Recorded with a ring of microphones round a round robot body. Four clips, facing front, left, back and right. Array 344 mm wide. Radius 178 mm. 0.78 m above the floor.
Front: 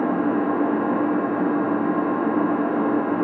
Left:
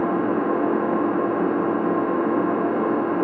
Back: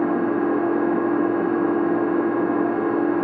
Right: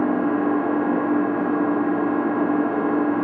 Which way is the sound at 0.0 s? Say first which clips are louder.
Right 1 dB, back 1 dB; 65° left.